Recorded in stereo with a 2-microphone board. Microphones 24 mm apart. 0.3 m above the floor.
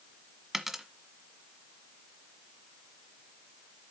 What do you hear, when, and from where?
0.5 s a dropped coin: 10° right (ahead or behind), 1.3 m